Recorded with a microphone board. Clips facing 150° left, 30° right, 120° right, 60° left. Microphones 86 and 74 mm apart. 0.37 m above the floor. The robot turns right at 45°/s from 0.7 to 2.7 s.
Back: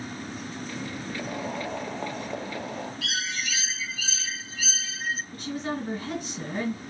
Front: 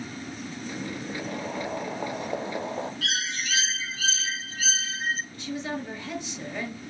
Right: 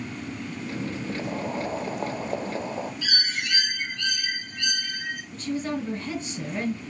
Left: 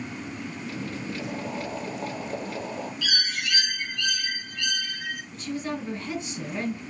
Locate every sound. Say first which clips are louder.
1.2 s boiling: back 1 dB, right 4 dB; 145° right, 0.6 m; by 2.9 s 75° right, 0.6 m
3.0 s a bird: front 1 dB, even; 65° right, 0.9 m
5.3 s a woman speaking: back 1 dB, right 4 dB; 170° right, 3 m